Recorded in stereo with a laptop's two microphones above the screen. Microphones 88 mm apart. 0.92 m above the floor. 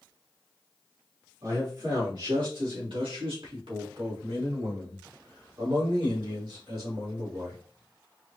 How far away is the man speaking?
About 1.5 m.